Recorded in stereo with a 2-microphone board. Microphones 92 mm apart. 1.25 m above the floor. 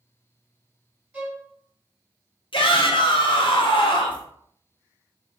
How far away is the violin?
About 1.2 m.